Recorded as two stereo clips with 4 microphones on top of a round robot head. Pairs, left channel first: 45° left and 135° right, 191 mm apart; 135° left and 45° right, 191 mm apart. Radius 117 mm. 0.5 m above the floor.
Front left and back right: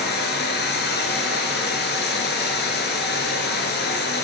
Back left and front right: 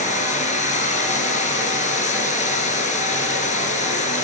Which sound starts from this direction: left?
Running water, at 0.0 s.